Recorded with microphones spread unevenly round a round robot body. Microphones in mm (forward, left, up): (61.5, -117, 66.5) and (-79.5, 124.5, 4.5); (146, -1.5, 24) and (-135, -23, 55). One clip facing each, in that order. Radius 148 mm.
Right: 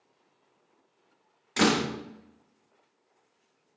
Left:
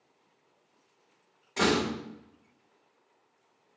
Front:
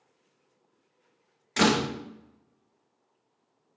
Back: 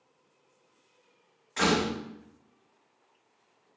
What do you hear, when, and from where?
1.6 s a door slam: straight ahead, 0.6 m